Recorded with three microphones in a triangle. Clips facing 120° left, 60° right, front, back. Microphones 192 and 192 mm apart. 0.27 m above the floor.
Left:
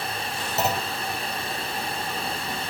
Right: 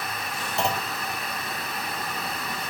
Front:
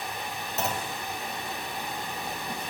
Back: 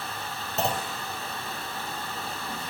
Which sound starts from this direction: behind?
A clunk, at 0.6 s.